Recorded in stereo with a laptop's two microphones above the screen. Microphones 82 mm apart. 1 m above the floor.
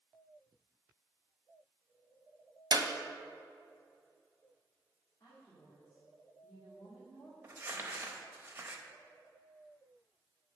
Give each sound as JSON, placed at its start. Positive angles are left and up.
{"t": 2.7, "sound": "a clap", "side_deg": -50, "distance_m": 0.8}
{"t": 5.2, "sound": "a woman speaking", "side_deg": 35, "distance_m": 2.5}
{"t": 7.4, "sound": "crumpling", "side_deg": -25, "distance_m": 0.7}